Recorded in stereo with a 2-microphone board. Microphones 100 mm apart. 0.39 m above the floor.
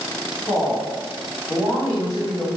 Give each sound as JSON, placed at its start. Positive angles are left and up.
{"t": 0.5, "sound": "a woman speaking", "side_deg": 35, "distance_m": 1.5}